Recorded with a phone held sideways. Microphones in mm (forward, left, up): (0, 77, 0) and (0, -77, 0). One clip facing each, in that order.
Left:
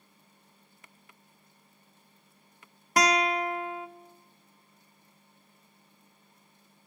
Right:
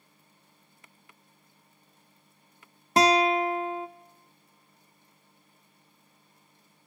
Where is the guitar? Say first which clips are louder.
Right 4 dB; 25° right (ahead or behind), 0.7 m.